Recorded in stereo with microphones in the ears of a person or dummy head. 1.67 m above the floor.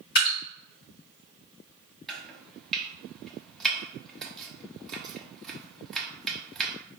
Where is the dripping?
55° left (ahead or behind), 2 m.